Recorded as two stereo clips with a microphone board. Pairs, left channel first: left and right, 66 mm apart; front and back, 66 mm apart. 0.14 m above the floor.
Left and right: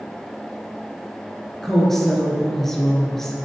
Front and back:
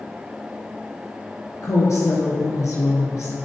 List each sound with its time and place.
1.6 s a woman speaking: 5° left, 2 m